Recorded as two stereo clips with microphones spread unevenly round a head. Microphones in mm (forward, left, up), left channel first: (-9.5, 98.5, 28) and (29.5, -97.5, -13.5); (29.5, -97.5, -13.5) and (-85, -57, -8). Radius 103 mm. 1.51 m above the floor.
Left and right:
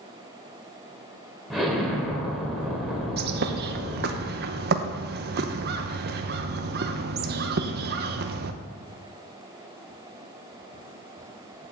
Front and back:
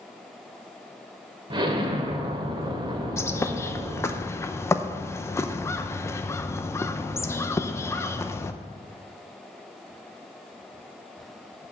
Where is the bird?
75° right, 0.6 m.